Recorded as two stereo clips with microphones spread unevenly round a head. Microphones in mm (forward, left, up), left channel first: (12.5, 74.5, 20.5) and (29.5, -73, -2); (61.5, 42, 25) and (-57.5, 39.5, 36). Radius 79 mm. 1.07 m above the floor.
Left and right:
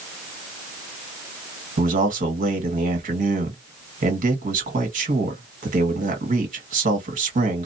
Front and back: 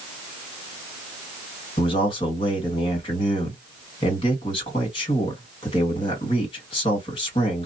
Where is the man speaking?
50° right, 1.6 m.